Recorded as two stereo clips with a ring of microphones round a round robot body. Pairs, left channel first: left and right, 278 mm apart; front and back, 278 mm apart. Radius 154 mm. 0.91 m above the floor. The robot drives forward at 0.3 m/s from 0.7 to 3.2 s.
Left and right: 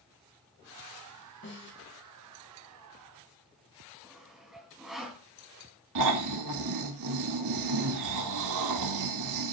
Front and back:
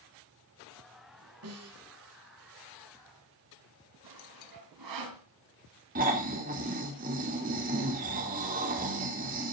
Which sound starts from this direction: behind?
Sawing, at 4.0 s.